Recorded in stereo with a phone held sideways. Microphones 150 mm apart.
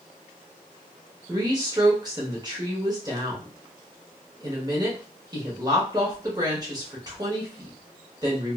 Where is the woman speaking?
25° right (ahead or behind), 1.1 m.